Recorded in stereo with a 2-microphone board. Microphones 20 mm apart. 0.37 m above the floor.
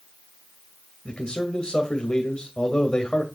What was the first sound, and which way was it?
A man speaking, 45° left (ahead or behind).